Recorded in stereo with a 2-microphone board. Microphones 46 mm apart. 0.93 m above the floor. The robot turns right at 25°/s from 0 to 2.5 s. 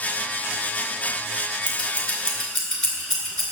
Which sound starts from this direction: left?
Scissors, at 1.7 s.